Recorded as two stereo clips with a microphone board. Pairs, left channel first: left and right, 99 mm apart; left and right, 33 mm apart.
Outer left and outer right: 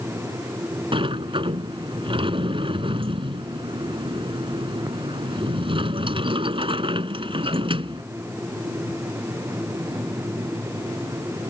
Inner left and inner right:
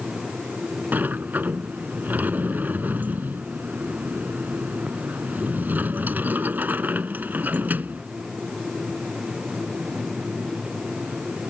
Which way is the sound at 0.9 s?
60° right (ahead or behind).